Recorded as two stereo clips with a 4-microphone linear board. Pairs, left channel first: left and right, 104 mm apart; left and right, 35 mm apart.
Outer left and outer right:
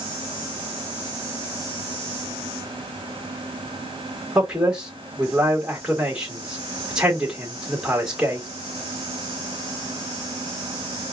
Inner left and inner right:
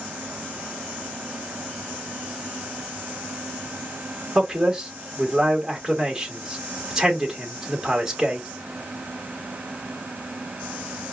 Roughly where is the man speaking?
Centre.